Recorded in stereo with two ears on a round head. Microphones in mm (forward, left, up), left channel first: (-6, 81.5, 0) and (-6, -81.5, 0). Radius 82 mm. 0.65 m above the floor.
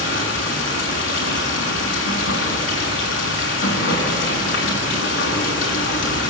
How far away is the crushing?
No crushing in this recording.